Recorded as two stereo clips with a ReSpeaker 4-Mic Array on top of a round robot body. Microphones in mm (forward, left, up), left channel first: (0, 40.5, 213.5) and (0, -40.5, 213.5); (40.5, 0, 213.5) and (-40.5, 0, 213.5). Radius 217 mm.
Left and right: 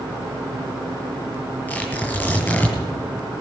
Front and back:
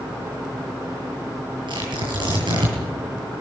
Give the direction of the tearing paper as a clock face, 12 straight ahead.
7 o'clock.